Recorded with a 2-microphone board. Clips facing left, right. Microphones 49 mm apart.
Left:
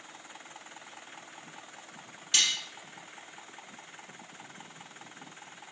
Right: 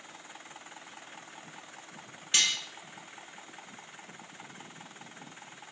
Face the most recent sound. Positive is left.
turn(degrees=-20)  # may be behind; listen again after turning